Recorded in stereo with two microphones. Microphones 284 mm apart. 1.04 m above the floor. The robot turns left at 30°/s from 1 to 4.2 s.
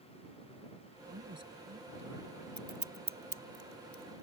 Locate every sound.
1.1 s a man speaking: 55° right; by 2.3 s 90° right
2.6 s scissors: 80° right; by 4.2 s 40° right (ahead or behind)